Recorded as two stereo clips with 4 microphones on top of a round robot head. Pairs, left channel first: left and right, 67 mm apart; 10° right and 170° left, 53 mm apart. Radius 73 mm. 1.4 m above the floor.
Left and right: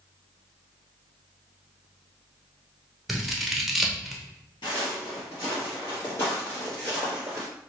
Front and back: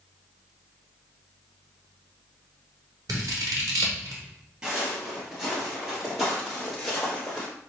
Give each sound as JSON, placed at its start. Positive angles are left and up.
{"t": 3.1, "sound": "scissors", "azimuth_deg": 180, "distance_m": 0.7}
{"t": 4.6, "sound": "footsteps", "azimuth_deg": 105, "distance_m": 1.8}